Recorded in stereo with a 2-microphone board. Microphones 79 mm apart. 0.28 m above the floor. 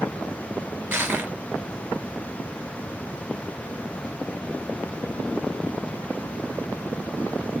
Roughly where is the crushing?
Right.